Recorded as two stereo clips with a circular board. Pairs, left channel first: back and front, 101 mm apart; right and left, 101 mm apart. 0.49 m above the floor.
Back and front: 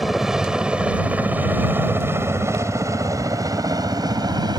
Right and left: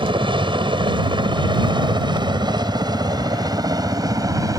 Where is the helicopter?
85° left; by 4.6 s 40° left.